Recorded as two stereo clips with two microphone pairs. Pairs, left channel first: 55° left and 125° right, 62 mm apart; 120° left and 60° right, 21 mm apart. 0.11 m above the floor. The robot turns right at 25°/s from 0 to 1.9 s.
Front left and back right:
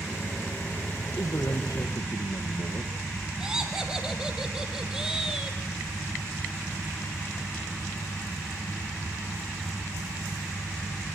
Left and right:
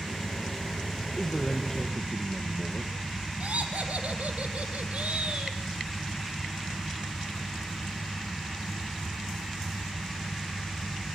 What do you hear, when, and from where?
1.2 s a man speaking: 30° left, 3 m; by 2.9 s 50° left, 3 m
3.4 s laughter: 45° right, 4.5 m